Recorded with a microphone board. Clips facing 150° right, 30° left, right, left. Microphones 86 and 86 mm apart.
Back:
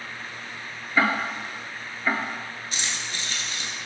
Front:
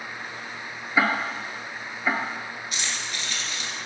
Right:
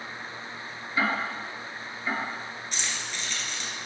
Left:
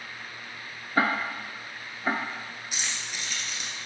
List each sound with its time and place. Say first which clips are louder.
1.0 s ticking: even, left 2 dB; 110° left, 0.8 m
2.7 s keys jangling: back 1 dB, even; 165° left, 1.3 m